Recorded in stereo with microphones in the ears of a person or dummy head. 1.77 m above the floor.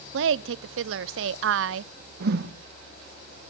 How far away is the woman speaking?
About 0.5 m.